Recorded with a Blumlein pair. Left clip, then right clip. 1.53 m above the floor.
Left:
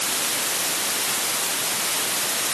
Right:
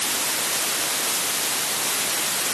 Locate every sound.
Only background noise.